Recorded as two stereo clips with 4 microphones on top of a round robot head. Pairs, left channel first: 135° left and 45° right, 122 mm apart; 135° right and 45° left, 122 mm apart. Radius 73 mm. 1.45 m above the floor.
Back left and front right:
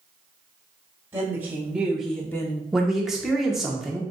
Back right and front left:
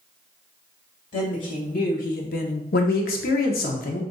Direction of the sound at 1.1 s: 120° right.